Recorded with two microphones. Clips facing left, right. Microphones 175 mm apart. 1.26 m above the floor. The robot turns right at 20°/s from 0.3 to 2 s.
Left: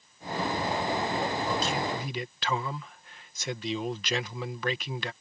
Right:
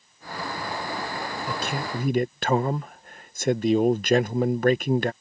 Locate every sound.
1.5 s a man speaking: 60° right (ahead or behind); by 5.1 s 50° right (ahead or behind)